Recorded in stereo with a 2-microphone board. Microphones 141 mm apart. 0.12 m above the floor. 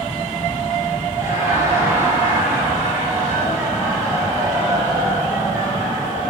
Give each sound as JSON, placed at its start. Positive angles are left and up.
{"t": 1.2, "sound": "laughter", "side_deg": -20, "distance_m": 2.5}